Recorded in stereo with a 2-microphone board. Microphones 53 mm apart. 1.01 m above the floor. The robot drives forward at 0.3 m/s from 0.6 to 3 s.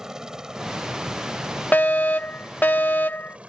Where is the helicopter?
10° right (ahead or behind); by 3.5 s 25° right (ahead or behind).